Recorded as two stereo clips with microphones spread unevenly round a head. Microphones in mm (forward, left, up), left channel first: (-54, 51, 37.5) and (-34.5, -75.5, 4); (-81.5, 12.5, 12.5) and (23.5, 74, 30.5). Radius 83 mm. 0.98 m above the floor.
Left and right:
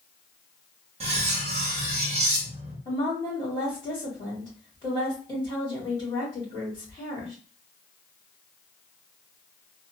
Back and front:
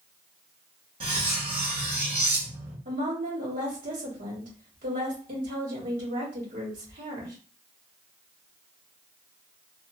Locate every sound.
1.0 s cutlery clinking: 30° right, 0.7 m
2.9 s a woman speaking: 35° left, 2 m